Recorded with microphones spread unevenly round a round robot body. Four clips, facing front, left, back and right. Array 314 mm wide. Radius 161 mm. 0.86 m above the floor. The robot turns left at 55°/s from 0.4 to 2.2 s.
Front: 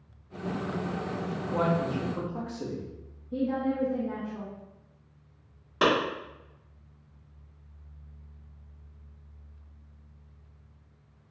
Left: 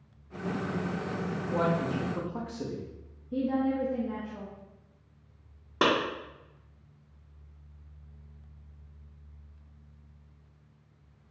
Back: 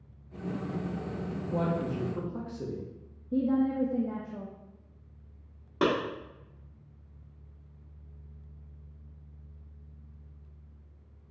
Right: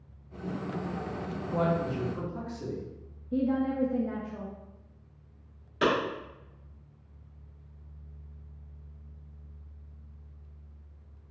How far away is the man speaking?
About 0.9 m.